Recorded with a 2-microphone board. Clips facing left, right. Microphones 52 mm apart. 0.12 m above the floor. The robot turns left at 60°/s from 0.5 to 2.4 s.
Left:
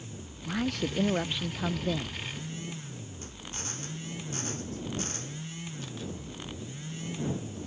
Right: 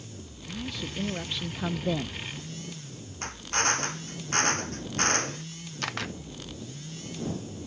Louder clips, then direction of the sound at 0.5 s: Left 6 dB; 70° left.